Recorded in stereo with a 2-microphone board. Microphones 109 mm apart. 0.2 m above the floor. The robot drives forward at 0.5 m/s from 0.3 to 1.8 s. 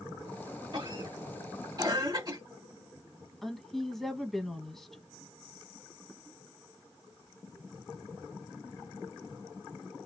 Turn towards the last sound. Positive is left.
turn(degrees=5)  # may be behind; listen again after turning